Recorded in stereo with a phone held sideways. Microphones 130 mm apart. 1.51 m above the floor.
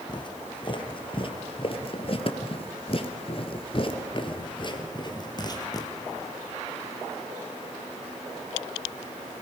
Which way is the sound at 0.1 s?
35° left (ahead or behind).